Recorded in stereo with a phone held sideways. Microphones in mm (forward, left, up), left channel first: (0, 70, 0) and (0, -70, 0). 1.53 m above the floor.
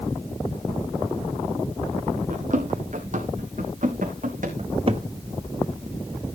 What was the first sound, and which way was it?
Running footsteps, 60° right (ahead or behind).